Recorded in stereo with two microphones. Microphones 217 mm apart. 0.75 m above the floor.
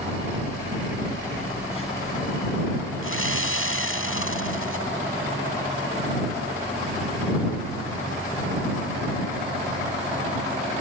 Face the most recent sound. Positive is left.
turn(degrees=75)  # may be behind; listen again after turning